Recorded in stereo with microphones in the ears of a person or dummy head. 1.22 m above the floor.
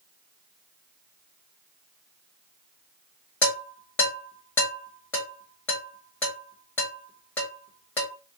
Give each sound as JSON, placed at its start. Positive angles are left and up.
{"t": 3.4, "sound": "dishes clattering", "side_deg": 10, "distance_m": 1.4}